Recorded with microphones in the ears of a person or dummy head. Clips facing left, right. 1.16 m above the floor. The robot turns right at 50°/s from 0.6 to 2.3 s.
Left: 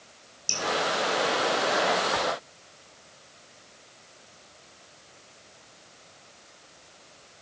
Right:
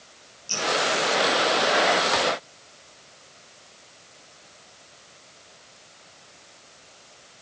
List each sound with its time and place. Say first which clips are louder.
0.5 s dripping: right 3 dB; 70° left (ahead or behind), 3.5 m